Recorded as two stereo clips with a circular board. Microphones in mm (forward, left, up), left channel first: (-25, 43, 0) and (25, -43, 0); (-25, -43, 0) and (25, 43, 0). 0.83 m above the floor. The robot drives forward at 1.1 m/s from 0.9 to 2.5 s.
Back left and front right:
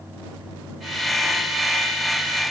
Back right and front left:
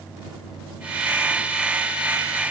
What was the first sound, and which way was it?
Only background noise.